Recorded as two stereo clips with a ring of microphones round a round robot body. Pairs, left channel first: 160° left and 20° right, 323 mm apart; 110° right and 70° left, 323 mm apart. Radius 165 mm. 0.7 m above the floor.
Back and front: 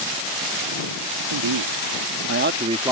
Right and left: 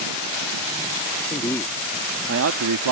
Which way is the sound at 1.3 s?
35° right.